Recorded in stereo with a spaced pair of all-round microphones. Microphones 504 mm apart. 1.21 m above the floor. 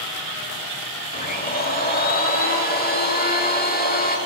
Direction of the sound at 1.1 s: 20° left (ahead or behind).